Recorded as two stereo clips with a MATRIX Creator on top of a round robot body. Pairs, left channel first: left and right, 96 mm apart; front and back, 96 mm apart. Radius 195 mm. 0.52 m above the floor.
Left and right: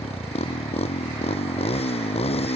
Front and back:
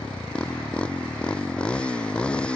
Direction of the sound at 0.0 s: 80° left.